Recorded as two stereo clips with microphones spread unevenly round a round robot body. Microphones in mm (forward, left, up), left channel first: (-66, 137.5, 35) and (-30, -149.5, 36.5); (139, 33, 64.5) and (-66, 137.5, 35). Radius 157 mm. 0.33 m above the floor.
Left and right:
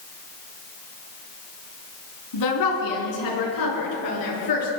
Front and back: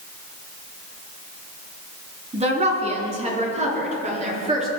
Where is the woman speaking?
90° left, 4.5 m.